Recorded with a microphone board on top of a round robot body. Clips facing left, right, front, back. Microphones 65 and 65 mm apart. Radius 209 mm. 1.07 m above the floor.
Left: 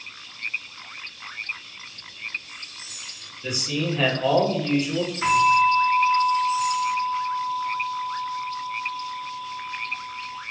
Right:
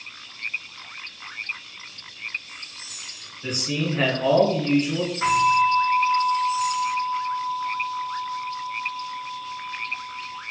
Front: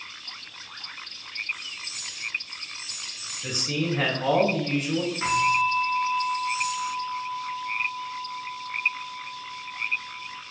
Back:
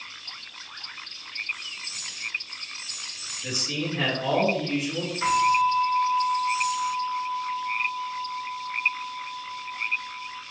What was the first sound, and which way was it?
A man speaking, 45° right.